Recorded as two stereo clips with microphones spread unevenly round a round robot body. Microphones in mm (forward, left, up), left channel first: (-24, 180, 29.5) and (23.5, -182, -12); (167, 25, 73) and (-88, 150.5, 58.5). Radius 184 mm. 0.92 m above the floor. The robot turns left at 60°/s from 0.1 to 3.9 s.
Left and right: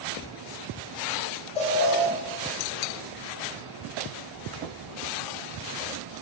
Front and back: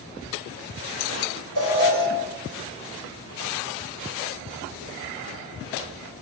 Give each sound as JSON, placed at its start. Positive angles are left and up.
{"t": 1.6, "sound": "an alarm", "azimuth_deg": 175, "distance_m": 7.5}